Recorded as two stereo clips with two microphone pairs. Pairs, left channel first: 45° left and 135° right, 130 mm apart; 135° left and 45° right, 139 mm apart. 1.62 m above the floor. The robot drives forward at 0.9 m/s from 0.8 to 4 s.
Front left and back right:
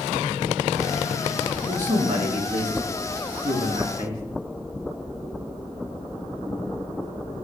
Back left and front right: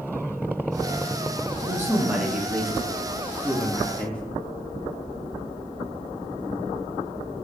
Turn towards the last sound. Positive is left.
turn(degrees=-145)